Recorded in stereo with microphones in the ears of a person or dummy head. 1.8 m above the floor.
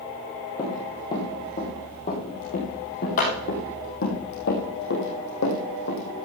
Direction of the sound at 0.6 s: 20° left (ahead or behind).